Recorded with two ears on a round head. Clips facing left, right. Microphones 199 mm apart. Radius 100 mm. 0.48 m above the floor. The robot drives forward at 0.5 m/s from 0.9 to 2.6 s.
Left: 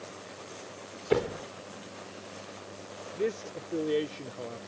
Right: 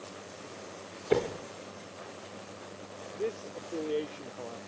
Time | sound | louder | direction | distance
1.1 | a door slam | left 1 dB | centre (ahead or behind) | ?
3.1 | a man speaking | left 3 dB | 25° left (ahead or behind) | ?